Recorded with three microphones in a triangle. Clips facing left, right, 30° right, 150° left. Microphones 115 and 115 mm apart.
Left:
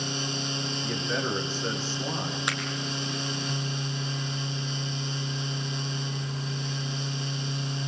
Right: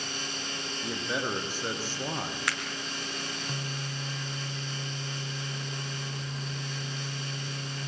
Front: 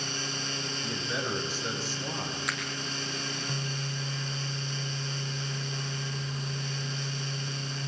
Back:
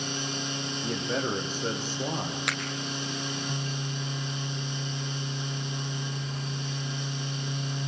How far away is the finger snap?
About 3.5 m.